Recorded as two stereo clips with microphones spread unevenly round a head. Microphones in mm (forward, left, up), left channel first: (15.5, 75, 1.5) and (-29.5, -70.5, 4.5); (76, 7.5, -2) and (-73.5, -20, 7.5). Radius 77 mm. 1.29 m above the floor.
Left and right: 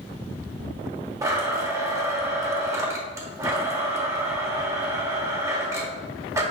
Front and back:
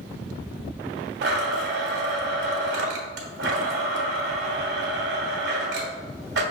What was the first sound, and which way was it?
A blender, straight behind.